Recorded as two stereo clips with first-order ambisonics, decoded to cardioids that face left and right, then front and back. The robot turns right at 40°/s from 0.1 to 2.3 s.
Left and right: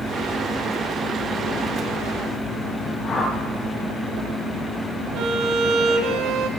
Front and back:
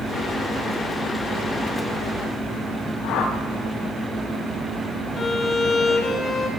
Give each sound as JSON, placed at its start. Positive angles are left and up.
{"t": 3.0, "sound": "a whoosh", "azimuth_deg": 25, "distance_m": 5.5}
{"t": 5.2, "sound": "a violin", "azimuth_deg": -60, "distance_m": 1.4}